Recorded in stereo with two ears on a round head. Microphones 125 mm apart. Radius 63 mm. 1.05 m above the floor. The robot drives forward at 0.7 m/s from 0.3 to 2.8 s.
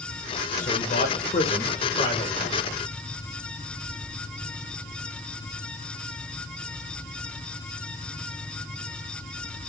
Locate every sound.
0.6 s a man speaking: 60° left (ahead or behind), 0.8 m; by 2.6 s 25° left (ahead or behind), 1.6 m